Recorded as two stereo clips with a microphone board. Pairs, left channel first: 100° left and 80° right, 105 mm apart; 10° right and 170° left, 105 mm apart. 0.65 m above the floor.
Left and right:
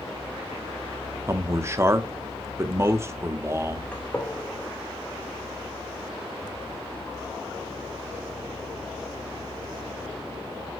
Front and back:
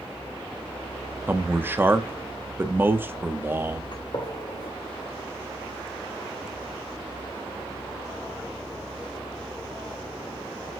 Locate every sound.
1.3 s a man speaking: 130° right, 0.8 m
3.9 s a gunshot: 25° left, 2 m